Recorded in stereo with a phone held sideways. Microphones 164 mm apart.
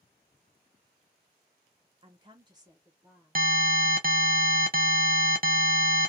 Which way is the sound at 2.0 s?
30° right (ahead or behind).